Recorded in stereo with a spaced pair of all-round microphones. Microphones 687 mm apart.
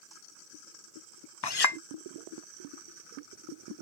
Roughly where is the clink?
Left.